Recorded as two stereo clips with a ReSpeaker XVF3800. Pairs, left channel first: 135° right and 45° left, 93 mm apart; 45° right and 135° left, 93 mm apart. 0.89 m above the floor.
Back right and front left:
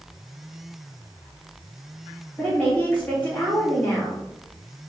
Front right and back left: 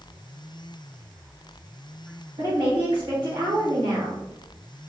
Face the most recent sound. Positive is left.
turn(degrees=150)